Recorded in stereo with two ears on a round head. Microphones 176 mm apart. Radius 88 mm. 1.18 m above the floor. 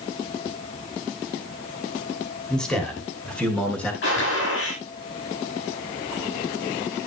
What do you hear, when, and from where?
2.5 s a man speaking: 5° left (ahead or behind), 2.5 m
4.0 s a gunshot: 65° left (ahead or behind), 9.5 m